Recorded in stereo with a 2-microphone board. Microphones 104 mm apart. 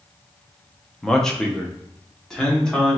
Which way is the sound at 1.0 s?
5° left (ahead or behind).